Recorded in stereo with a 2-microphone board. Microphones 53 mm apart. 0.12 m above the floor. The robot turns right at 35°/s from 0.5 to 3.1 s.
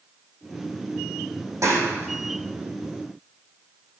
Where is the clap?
65° right (ahead or behind), 5 m; by 2.6 s 30° right (ahead or behind), 5 m.